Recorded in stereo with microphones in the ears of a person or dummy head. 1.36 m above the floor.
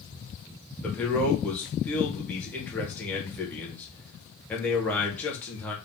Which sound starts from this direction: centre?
A man speaking, at 0.8 s.